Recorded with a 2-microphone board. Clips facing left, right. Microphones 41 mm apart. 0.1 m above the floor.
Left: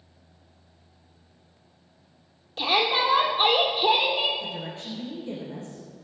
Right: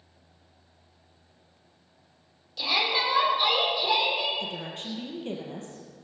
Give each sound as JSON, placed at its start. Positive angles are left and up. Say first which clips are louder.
{"t": 2.6, "sound": "a shout", "louder": "left 3 dB", "side_deg": 35, "distance_m": 3.0}
{"t": 4.4, "sound": "a woman speaking", "louder": "left 1 dB", "side_deg": -60, "distance_m": 3.5}